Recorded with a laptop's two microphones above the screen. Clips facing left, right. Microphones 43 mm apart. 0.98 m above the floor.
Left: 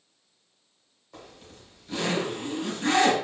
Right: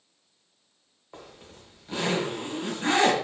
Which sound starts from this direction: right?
A zipper, at 1.1 s.